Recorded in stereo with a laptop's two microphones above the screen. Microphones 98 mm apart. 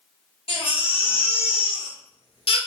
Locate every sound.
0.5 s a baby crying: 75° left (ahead or behind), 0.8 m